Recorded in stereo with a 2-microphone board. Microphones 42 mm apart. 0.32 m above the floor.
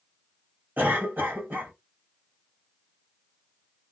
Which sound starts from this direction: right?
A cough, at 0.8 s.